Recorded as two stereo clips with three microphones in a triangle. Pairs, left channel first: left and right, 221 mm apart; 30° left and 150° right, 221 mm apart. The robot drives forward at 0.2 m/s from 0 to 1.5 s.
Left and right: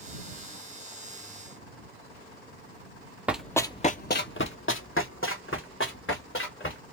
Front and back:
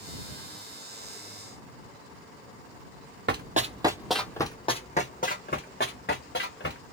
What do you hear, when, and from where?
3.3 s running footsteps: 175° right, 0.6 m; by 6.8 s 65° left, 1.8 m